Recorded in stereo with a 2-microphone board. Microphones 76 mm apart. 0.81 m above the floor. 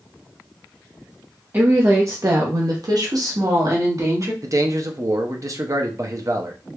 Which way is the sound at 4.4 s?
40° right (ahead or behind).